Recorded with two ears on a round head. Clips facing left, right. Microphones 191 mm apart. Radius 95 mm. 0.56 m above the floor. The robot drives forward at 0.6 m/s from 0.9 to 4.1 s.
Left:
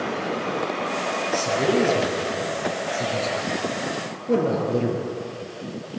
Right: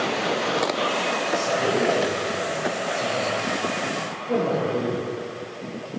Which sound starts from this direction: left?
A man speaking, at 1.3 s.